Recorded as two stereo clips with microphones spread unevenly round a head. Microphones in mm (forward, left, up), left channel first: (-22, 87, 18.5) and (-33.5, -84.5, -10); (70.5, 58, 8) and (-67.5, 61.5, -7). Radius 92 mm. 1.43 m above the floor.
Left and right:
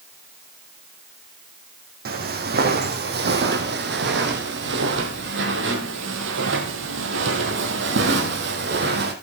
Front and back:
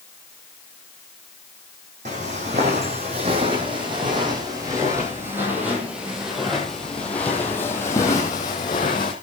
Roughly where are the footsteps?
Behind right.